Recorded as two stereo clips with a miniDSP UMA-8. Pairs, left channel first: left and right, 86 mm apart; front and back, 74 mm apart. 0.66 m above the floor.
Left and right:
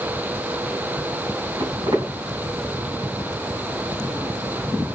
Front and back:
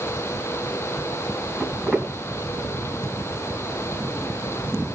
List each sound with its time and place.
1.6 s footsteps: 85° right, 3.5 m